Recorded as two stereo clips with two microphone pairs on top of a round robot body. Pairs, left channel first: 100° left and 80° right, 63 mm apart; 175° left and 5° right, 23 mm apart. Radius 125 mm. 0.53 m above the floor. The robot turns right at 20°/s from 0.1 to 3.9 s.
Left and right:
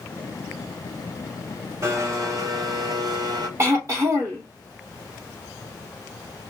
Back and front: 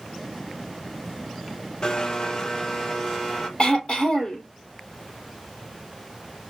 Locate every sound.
1.8 s a blender: 130° right, 0.8 m; by 3.5 s 95° right, 0.8 m
3.6 s throat clearing: 130° right, 3 m; by 4.4 s 125° right, 3 m